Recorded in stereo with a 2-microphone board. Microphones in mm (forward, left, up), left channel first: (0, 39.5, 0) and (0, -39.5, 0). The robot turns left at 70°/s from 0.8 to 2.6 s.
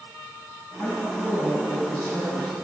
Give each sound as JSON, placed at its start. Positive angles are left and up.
{"t": 0.8, "sound": "a woman speaking", "azimuth_deg": 25, "distance_m": 2.0}